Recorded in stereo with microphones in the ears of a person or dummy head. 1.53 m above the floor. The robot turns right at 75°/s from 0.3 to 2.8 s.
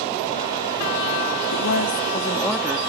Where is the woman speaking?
105° left; by 2.8 s 160° right.